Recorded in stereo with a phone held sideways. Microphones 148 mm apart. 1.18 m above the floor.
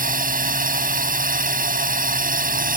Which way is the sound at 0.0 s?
70° right (ahead or behind).